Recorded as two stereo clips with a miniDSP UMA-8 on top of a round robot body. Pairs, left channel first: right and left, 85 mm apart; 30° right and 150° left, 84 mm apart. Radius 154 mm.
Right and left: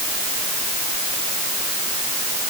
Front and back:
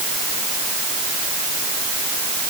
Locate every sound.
Only background noise.